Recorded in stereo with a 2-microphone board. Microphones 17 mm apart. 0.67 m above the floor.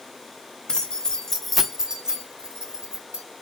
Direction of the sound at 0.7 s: 60° left (ahead or behind).